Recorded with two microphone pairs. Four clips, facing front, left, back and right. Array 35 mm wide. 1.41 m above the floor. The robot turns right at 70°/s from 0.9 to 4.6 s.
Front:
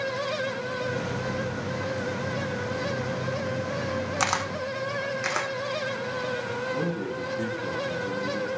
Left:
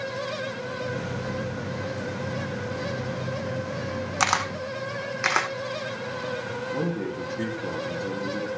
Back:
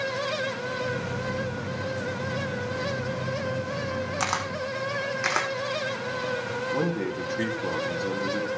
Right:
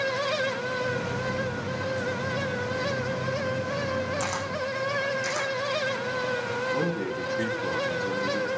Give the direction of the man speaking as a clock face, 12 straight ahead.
5 o'clock.